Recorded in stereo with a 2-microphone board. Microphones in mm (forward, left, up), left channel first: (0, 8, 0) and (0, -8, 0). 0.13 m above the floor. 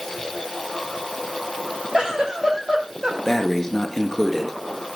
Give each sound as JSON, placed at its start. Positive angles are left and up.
{"t": 1.9, "sound": "a giggle", "side_deg": -45, "distance_m": 5.0}
{"t": 3.2, "sound": "breathing", "side_deg": 25, "distance_m": 1.7}